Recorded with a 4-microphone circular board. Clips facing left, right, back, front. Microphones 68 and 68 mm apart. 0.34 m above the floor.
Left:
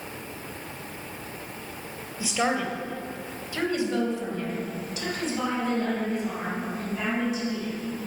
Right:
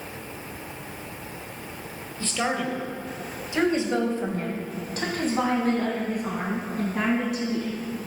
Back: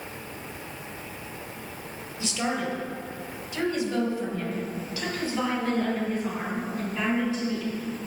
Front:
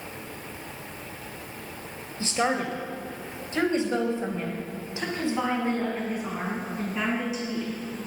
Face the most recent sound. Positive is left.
turn(degrees=-75)